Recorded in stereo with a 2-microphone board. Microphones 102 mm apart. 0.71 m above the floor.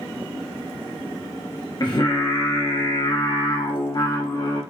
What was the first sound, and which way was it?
Singing, 45° left (ahead or behind).